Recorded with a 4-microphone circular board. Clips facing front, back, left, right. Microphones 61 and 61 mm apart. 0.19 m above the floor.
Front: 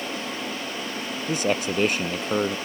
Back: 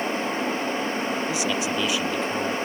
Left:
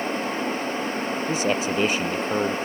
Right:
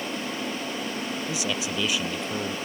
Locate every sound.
1.3 s a man speaking: 40° left